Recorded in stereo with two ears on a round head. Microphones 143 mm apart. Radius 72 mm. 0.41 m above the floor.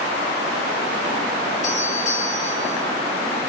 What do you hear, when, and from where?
1.6 s a doorbell: 45° left (ahead or behind), 3.5 m